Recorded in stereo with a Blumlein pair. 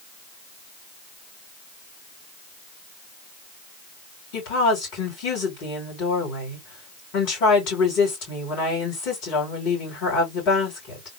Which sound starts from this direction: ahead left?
A woman speaking, at 4.3 s.